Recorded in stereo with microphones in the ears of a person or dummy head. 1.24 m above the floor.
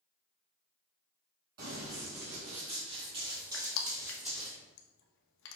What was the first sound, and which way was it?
Running footsteps, 45° right (ahead or behind).